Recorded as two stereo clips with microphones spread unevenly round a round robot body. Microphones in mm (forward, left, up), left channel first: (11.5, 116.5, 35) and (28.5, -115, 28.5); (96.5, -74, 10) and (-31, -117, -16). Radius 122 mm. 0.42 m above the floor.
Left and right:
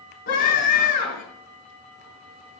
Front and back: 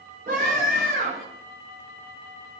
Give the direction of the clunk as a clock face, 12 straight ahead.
No clunk in this recording.